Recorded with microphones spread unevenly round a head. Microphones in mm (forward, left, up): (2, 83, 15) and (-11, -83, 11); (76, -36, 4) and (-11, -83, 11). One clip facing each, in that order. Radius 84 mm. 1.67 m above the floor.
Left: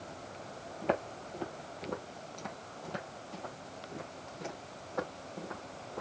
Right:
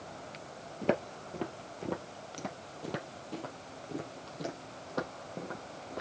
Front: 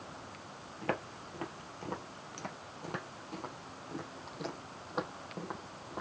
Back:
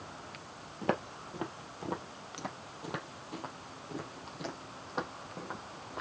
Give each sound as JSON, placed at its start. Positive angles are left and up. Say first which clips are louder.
{"t": 0.8, "sound": "footsteps", "louder": "right 2 dB, back 3 dB", "azimuth_deg": -95, "distance_m": 2.5}